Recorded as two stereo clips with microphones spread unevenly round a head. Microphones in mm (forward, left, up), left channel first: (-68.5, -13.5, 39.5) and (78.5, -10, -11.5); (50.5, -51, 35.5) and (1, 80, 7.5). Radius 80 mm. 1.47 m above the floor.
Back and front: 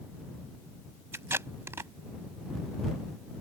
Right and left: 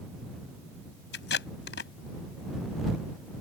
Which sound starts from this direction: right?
Tape being pulled, at 1.1 s.